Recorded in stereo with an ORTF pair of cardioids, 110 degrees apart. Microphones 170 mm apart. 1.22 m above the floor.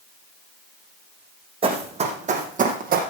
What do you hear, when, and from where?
1.6 s running footsteps: 30° right, 4 m; by 3.0 s 60° right, 3.5 m